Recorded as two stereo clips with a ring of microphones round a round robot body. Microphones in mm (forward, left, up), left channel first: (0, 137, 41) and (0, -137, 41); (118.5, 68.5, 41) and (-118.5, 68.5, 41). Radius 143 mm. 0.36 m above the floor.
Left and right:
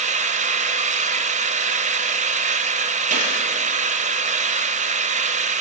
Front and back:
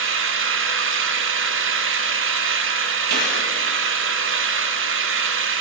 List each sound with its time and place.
0.0 s an engine running: 150° right, 1.4 m
3.1 s a gunshot: 155° right, 5.5 m